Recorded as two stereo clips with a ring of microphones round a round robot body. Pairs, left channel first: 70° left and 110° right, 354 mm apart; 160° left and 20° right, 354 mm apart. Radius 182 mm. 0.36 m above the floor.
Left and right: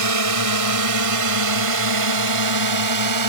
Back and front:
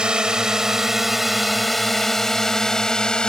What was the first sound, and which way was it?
A drone, 110° right.